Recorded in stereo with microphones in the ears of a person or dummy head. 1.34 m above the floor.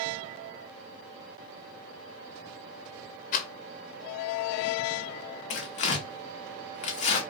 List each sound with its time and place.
3.3 s a rattle: 45° left (ahead or behind), 0.7 m
5.5 s tearing paper: 40° left (ahead or behind), 0.7 m